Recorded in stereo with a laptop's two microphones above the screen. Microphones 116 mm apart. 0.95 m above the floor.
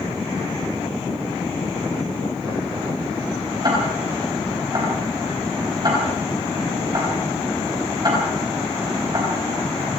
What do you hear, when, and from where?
3.6 s ticking: 35° right (ahead or behind), 5 m